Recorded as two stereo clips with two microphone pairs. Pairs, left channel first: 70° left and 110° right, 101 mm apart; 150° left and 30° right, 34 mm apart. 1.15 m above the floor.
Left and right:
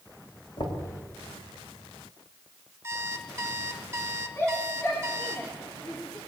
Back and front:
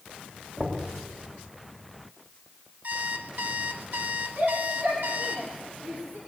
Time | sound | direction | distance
0.6 | knocking | 35° left | 3.5 m
2.8 | an alarm clock | 50° right | 1.4 m
4.4 | a shout | 10° left | 3 m